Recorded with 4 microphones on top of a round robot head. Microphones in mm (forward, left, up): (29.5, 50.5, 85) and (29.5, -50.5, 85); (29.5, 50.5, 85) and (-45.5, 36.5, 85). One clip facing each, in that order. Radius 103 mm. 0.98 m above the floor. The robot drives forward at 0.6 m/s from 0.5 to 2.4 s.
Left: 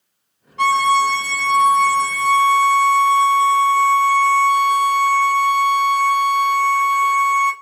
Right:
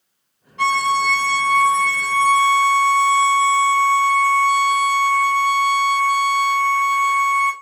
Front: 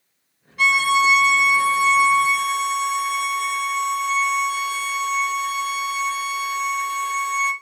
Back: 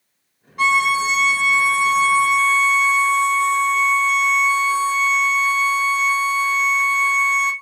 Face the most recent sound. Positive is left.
turn(degrees=155)